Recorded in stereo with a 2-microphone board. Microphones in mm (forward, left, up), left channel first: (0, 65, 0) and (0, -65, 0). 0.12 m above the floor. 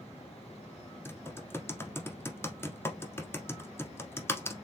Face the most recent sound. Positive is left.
turn(degrees=20)  # may be behind; listen again after turning